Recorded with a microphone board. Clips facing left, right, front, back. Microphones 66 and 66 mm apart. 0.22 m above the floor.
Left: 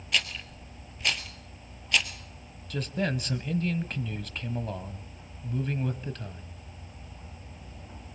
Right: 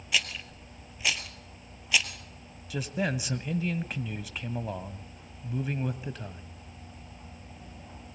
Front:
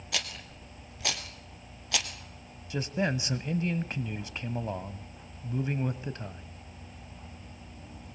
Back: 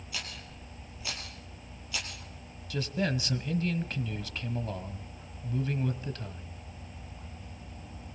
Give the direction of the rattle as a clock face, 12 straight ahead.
12 o'clock.